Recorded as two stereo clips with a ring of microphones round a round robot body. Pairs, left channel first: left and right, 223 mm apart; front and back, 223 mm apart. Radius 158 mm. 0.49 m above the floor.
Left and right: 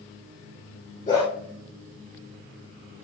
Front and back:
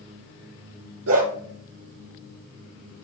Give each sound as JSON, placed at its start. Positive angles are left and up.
{"t": 1.1, "sound": "a dog barking", "azimuth_deg": 170, "distance_m": 4.5}